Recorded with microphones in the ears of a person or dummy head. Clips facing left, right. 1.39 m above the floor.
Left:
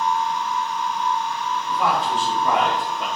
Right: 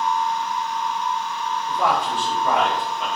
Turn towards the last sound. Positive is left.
turn(degrees=40)  # may be behind; listen again after turning